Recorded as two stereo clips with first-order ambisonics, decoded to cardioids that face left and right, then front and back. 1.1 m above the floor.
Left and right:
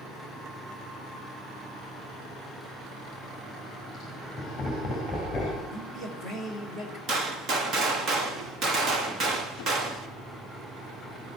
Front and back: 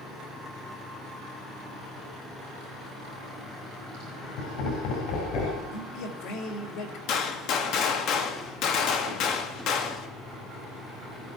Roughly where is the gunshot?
Ahead right.